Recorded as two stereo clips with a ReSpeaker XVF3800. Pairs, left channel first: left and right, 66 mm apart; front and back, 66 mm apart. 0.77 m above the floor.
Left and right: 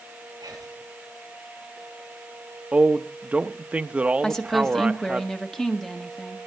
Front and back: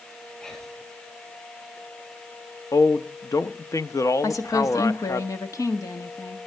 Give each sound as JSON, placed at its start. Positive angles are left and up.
{"t": 0.4, "sound": "whispering", "azimuth_deg": -80, "distance_m": 7.0}
{"t": 2.7, "sound": "a man speaking", "azimuth_deg": -20, "distance_m": 0.9}
{"t": 4.2, "sound": "a woman speaking", "azimuth_deg": 10, "distance_m": 1.7}